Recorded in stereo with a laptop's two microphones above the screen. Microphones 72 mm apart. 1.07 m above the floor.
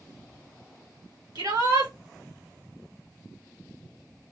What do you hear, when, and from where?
1.4 s a shout: 65° right (ahead or behind), 1.5 m